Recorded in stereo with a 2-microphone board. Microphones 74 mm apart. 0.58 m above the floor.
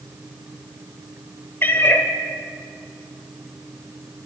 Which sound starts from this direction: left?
A cat meowing, at 1.6 s.